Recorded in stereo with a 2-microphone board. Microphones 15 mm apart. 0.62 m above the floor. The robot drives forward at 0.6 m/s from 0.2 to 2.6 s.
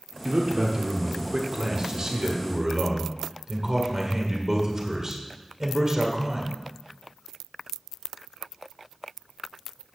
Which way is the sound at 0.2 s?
60° right (ahead or behind).